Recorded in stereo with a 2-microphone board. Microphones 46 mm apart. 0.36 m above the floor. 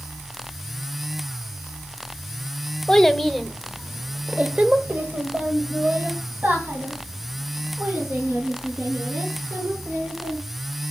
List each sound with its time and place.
2.9 s a child speaking: 10° left (ahead or behind), 0.8 m; by 10.4 s 35° right (ahead or behind), 3.5 m